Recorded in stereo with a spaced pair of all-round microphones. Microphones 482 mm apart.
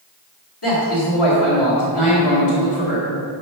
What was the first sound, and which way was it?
A man speaking, 55° left (ahead or behind).